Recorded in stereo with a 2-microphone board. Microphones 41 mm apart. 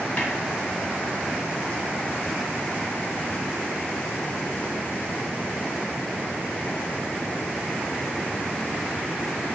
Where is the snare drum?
35° left (ahead or behind), 0.8 m.